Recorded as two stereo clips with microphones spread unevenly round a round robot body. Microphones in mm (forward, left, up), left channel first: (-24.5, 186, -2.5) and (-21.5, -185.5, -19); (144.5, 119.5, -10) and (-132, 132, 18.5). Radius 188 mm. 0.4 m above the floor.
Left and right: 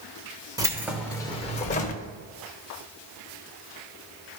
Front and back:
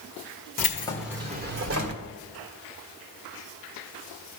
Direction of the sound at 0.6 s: 20° right.